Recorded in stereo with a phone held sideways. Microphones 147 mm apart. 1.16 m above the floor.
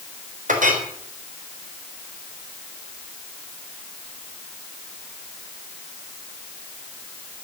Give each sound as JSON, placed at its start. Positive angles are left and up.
{"t": 0.5, "sound": "a clink", "side_deg": -60, "distance_m": 3.5}